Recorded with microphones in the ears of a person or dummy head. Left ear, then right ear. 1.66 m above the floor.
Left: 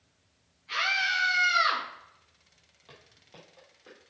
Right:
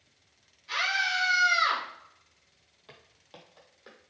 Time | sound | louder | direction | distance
0.7 | a scream | left 1 dB | 25° right (ahead or behind) | 3 m
2.9 | footsteps | right 1 dB | 10° right (ahead or behind) | 3 m